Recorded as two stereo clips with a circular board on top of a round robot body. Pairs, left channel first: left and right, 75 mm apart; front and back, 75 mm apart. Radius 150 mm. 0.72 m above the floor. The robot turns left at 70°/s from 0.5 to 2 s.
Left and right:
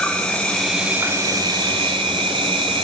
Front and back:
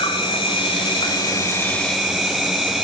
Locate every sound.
0.0 s an insect: 15° left, 1.1 m; by 2.9 s 90° right, 1.1 m